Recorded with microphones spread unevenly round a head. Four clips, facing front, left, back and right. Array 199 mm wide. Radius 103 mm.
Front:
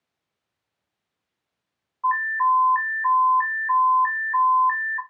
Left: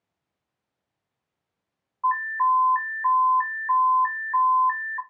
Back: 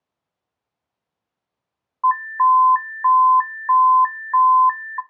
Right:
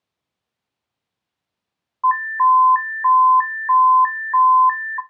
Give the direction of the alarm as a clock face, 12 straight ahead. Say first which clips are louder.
Right 7 dB, back 5 dB; 4 o'clock.